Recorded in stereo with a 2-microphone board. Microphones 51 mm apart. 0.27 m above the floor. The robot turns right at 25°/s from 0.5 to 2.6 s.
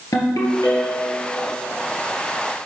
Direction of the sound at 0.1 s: 75° left (ahead or behind).